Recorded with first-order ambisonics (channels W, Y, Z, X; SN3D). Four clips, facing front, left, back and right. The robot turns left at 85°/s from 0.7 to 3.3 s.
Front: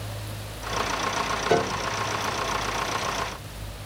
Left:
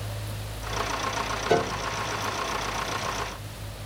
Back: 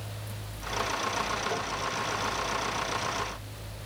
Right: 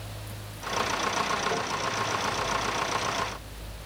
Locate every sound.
1.5 s a piano: 40° left; by 1.9 s 10° left